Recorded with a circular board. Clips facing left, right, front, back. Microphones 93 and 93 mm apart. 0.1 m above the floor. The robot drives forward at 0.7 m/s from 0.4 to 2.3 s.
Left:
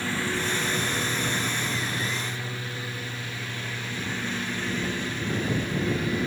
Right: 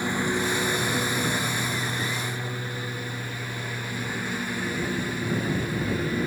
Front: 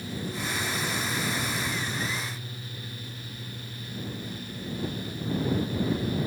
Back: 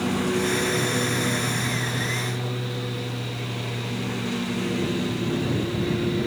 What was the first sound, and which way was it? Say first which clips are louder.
A lawn mower: right 3 dB, back 11 dB; 165° right.